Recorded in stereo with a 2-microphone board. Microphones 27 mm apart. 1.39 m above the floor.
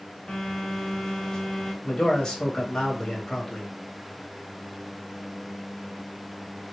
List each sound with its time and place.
0.3 s a phone buzzing: 20° left (ahead or behind), 1.1 m
1.8 s a man speaking: 25° left (ahead or behind), 1.2 m